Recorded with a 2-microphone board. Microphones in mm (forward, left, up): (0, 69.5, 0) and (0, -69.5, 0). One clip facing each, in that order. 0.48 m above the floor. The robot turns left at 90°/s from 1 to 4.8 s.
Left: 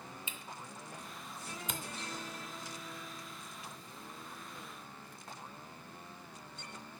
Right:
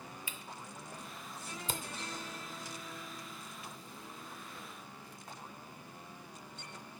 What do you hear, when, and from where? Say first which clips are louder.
0.3 s a camera shutter: even; 25° left (ahead or behind), 0.6 m; by 1.8 s 45° right (ahead or behind), 0.6 m